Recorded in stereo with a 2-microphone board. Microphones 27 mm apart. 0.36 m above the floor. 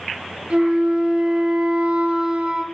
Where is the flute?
60° right (ahead or behind), 1.8 m.